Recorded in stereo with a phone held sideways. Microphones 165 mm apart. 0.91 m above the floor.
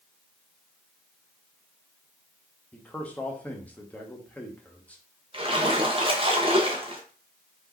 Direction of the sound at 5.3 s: 35° right (ahead or behind).